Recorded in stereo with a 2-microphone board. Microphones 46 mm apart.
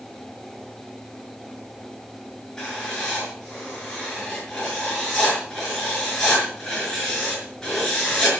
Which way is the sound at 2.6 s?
15° left (ahead or behind).